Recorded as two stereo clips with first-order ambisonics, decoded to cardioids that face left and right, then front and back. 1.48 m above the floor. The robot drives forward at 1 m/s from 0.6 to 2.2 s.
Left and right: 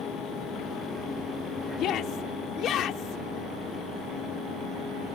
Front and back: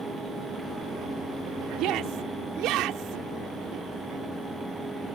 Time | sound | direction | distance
1.8 | a shout | 140° left | ?